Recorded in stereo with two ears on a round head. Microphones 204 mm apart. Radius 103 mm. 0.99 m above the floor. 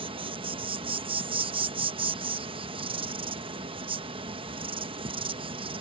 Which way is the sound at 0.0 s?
25° right (ahead or behind).